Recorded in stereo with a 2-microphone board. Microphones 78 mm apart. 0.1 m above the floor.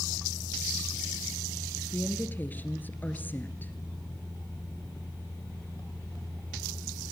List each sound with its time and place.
1.9 s a woman speaking: 25° left (ahead or behind), 2 m